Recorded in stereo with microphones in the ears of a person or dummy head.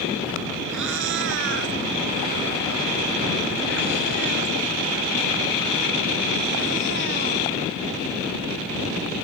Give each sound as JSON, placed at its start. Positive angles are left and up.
{"t": 0.7, "sound": "a cat meowing", "side_deg": -70}